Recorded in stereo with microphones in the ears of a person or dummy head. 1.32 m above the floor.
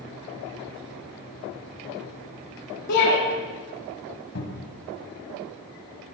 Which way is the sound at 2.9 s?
60° left (ahead or behind).